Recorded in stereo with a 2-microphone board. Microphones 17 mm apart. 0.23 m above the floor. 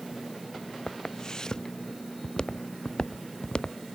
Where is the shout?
No shout in this recording.